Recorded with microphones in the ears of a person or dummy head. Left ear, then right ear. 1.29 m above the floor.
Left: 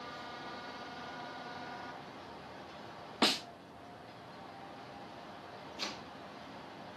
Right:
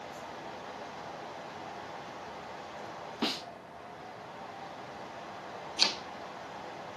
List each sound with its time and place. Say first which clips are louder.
0.0 s a fan: right 2 dB; 25° right (ahead or behind), 0.8 m
3.2 s a snare drum: left 4 dB; 20° left (ahead or behind), 0.9 m
5.8 s chopping: right 13 dB; 40° right (ahead or behind), 1.0 m